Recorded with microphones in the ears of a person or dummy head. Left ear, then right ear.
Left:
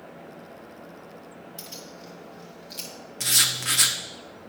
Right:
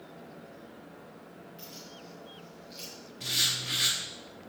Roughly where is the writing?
Left.